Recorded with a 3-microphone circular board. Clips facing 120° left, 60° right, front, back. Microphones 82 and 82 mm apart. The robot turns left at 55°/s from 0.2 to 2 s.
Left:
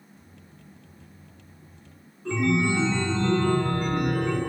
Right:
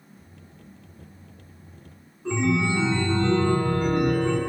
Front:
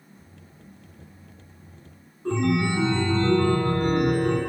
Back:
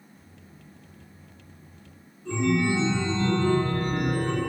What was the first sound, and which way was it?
A chime, 10° left.